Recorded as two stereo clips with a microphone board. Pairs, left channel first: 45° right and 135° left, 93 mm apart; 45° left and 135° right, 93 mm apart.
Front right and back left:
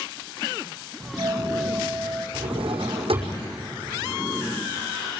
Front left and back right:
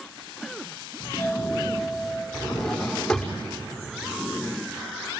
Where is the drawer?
130° left, 5.5 m.